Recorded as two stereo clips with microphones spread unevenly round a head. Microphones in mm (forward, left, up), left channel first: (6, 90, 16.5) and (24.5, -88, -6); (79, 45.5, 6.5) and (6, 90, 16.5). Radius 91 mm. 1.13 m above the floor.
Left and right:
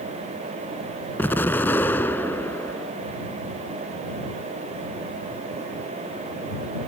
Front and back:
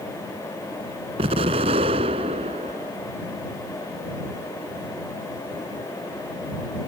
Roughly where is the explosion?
Behind.